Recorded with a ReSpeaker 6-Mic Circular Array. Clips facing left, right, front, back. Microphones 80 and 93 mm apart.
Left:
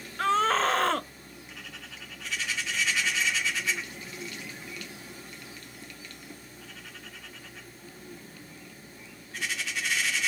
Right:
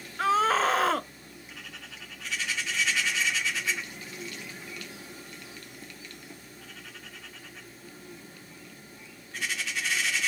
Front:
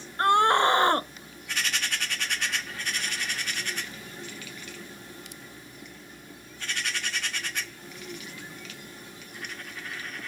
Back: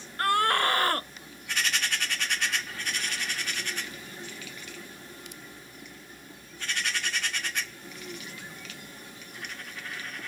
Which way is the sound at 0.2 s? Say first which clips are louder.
Right 1 dB, front 4 dB; 10° right.